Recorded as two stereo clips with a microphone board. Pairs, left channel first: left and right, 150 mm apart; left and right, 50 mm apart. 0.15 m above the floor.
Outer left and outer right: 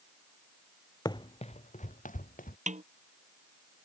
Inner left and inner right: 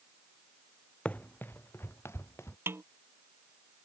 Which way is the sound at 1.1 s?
25° left (ahead or behind).